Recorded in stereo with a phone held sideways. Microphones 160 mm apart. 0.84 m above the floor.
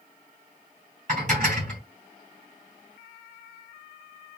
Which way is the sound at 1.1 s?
45° right (ahead or behind).